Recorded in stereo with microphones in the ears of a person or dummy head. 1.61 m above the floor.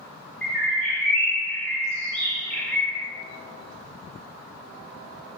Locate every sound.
0.4 s a bird: 10° left (ahead or behind), 1.0 m